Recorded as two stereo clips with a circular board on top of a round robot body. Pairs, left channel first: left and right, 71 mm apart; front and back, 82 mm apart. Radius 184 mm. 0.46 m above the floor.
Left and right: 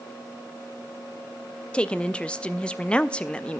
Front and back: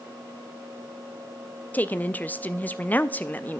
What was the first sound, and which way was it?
A woman speaking, 35° left.